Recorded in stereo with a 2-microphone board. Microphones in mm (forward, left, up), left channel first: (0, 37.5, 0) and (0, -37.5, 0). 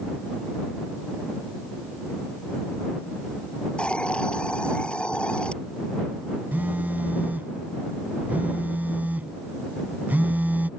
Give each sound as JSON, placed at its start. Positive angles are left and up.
{"t": 3.8, "sound": "a hiss", "side_deg": 15}
{"t": 6.5, "sound": "a phone buzzing", "side_deg": -25}